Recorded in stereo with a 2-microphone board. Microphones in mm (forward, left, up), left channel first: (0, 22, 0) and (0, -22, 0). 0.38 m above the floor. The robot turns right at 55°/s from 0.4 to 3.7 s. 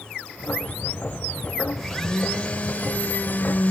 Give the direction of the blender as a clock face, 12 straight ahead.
12 o'clock.